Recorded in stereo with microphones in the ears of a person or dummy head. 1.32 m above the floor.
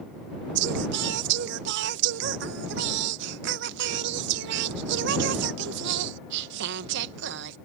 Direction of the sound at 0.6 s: 70° right (ahead or behind).